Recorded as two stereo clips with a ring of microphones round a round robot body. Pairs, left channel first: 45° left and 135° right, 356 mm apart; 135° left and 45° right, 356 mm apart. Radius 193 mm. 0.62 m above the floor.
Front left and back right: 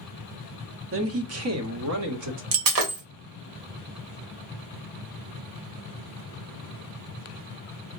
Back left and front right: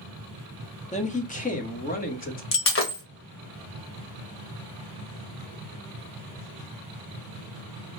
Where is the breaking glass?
170° right, 1.7 m.